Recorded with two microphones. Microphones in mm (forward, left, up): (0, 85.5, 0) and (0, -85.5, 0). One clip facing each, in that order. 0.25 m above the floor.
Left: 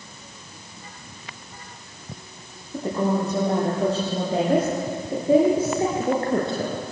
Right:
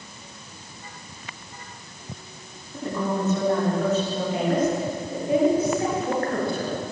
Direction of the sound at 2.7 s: 35° left (ahead or behind).